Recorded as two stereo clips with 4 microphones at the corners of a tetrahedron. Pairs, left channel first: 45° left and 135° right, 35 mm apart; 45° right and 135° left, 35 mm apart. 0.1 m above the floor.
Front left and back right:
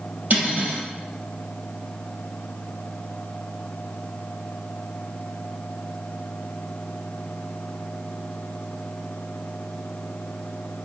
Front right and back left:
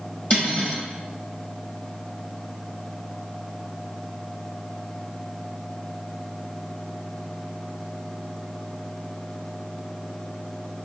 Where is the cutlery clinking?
95° right, 2 m.